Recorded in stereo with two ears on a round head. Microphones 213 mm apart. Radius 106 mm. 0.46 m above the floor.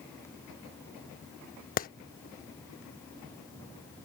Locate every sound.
1.8 s a clap: 35° left (ahead or behind)